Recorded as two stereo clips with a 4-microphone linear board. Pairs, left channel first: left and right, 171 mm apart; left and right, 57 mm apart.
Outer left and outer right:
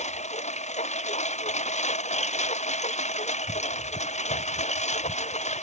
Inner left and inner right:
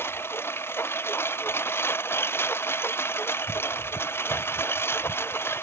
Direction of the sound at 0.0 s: 40° left (ahead or behind).